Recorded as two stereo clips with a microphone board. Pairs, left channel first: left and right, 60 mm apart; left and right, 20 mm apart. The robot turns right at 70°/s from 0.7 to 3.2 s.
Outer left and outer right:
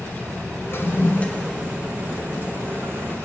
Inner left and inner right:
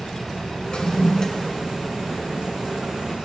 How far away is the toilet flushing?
About 0.9 m.